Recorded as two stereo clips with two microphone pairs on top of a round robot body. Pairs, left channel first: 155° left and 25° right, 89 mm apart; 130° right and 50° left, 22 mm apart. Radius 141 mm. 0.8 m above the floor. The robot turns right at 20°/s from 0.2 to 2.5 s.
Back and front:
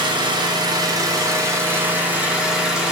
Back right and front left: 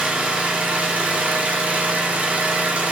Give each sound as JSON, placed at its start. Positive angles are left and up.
{"t": 0.0, "sound": "an engine running", "azimuth_deg": 10, "distance_m": 1.6}